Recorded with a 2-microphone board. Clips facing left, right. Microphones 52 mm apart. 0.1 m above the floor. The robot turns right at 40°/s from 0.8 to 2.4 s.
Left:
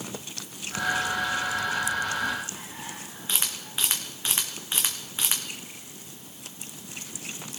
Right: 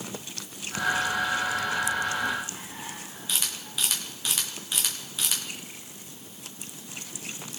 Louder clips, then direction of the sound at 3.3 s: Left 1 dB; 30° left (ahead or behind).